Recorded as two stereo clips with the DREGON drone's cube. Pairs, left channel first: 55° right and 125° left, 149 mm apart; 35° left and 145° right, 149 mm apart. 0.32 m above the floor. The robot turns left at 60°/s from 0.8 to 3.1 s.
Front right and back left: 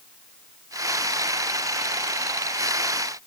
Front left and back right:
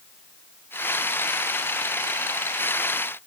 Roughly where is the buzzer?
No buzzer in this recording.